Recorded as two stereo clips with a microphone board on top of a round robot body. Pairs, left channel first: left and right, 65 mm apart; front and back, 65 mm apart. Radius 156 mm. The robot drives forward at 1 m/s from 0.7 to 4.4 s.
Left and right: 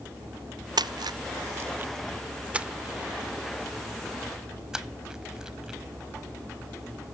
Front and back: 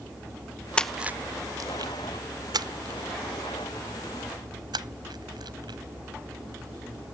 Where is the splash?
75° right; by 5.8 s 170° right.